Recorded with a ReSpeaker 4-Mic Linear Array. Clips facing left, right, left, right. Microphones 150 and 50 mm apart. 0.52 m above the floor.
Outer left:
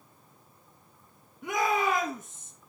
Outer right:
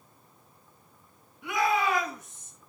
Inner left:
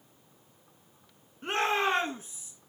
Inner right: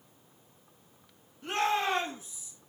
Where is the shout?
40° left (ahead or behind), 4.5 m; by 2.5 s 50° left (ahead or behind), 4.5 m.